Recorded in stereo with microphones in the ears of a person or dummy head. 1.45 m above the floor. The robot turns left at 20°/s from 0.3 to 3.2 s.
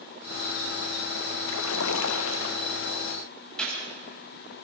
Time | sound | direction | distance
1.5 | a splash | 100° left | 1.1 m
3.6 | a gunshot | 10° left (ahead or behind) | 7.5 m